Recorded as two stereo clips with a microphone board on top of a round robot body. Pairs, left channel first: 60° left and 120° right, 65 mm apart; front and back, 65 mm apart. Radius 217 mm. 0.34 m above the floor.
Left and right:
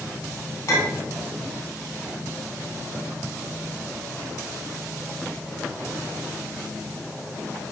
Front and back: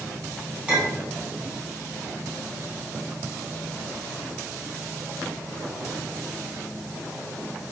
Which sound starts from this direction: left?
A clink, at 0.7 s.